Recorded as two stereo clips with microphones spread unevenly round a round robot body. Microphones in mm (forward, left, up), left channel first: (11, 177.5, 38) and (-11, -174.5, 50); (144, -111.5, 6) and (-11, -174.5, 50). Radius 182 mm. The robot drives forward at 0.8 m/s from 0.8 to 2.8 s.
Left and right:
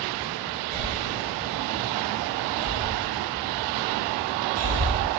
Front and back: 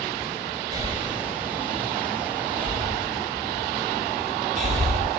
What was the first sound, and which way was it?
Breathing, 95° right.